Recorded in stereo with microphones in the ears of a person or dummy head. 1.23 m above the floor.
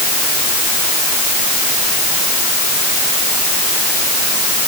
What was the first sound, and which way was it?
Only background noise.